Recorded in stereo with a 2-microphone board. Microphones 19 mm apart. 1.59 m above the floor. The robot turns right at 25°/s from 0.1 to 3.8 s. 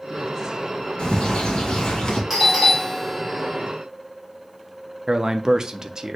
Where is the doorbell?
15° right, 1.7 m; by 3.6 s 20° left, 1.7 m.